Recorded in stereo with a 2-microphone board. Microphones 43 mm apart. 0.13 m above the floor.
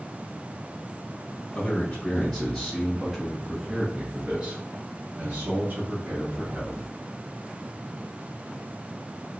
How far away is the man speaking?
About 1.7 m.